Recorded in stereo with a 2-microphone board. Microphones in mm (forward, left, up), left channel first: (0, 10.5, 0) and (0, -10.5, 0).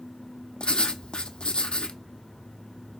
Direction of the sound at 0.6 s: 40° left (ahead or behind).